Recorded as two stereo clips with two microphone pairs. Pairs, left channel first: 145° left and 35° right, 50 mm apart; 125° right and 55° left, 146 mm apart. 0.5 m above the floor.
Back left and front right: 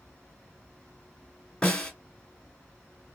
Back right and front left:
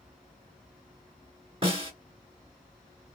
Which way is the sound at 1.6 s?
85° left.